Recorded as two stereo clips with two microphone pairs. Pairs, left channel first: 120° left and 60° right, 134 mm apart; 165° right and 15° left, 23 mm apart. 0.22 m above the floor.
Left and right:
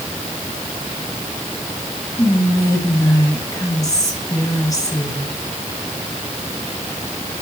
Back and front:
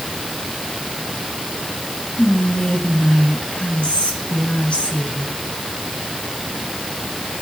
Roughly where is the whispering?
Behind.